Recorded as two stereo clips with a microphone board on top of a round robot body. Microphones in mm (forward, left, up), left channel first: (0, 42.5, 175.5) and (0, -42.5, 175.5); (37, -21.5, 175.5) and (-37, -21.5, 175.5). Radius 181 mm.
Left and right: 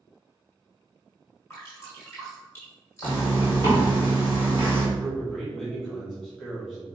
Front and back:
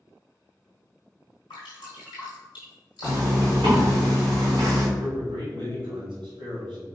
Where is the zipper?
145° left, 1.5 m.